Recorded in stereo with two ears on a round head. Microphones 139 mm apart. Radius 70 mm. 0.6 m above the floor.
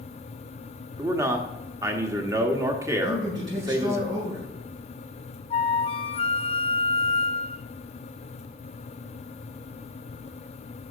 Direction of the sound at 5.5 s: 35° left (ahead or behind).